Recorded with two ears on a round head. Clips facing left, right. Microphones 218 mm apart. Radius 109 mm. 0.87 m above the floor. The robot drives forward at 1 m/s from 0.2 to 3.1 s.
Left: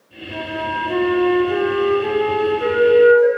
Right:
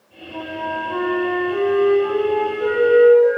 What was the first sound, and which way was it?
A flute, 75° left (ahead or behind).